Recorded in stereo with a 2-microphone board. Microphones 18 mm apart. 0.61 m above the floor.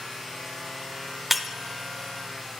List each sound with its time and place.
1.3 s breaking glass: 10° right (ahead or behind), 0.6 m